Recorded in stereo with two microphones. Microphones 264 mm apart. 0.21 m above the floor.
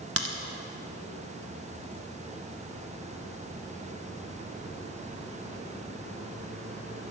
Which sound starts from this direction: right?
A crack, at 0.2 s.